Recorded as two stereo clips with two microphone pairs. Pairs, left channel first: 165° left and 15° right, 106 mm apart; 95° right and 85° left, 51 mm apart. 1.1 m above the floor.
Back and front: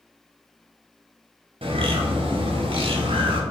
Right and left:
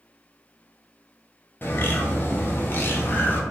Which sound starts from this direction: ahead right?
A bird, at 1.6 s.